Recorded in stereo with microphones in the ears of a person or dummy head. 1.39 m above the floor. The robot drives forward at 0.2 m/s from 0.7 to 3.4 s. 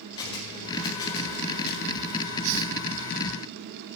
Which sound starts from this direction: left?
A camera shutter, at 0.2 s.